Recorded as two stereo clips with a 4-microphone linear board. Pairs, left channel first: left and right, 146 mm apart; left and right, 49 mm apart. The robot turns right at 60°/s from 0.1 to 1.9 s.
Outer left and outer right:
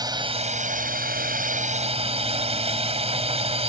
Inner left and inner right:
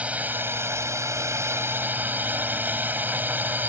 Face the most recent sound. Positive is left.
turn(degrees=-45)